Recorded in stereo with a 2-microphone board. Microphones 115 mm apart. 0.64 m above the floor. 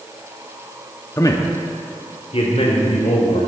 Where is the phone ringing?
No phone ringing in this recording.